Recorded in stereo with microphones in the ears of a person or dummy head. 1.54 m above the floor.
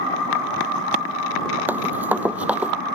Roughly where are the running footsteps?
Centre.